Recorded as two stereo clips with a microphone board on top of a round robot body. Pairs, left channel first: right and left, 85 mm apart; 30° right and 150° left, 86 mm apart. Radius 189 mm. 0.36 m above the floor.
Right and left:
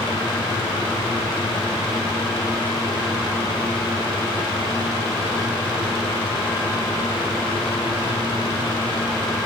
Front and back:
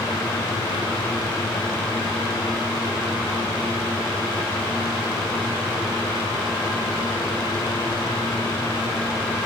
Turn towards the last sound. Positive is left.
No sound to turn to.